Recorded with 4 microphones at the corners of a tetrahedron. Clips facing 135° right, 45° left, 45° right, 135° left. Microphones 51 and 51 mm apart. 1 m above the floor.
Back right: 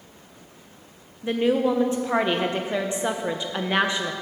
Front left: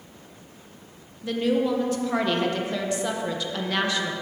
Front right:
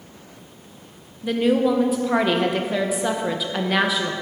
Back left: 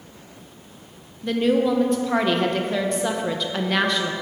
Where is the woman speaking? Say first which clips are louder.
Back right 2 dB, front right 1 dB; 120° right, 0.7 m.